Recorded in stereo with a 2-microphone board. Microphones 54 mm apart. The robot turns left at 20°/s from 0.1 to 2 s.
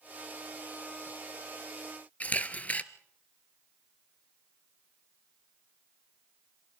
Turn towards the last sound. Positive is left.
turn(degrees=30)  # may be behind; listen again after turning